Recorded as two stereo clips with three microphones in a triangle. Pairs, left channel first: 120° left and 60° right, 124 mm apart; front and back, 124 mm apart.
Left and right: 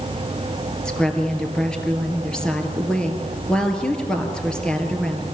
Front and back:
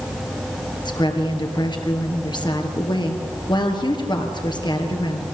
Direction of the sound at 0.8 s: 40° left.